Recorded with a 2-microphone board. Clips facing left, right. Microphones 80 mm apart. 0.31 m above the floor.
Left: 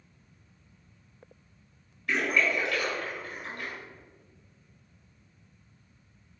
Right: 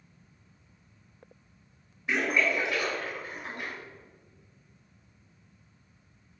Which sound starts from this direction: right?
A splash, at 2.1 s.